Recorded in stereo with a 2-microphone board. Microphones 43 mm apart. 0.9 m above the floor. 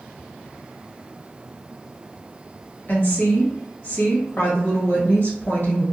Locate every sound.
2.9 s a woman speaking: 45° left (ahead or behind), 1.4 m